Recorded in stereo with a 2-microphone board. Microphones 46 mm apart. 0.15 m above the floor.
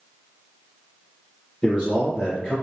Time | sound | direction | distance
1.6 | a man speaking | 20° left (ahead or behind) | 2.5 m